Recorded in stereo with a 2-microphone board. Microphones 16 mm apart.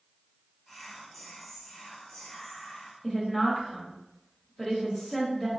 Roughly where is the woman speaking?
Left.